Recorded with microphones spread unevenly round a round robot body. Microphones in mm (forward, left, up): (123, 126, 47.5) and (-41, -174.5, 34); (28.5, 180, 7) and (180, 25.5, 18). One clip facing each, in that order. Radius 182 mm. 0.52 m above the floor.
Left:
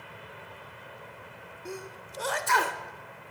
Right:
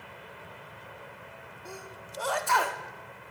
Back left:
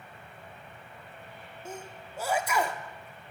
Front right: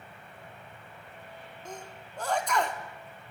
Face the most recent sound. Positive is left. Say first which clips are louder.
# left 5 dB, back left 2 dB
turn(degrees=70)